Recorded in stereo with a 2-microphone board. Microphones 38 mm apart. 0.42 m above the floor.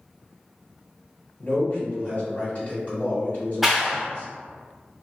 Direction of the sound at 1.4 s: 45° left (ahead or behind).